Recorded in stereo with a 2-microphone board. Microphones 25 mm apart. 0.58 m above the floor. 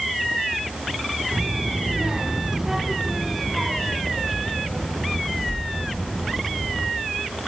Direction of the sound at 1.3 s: 60° right (ahead or behind).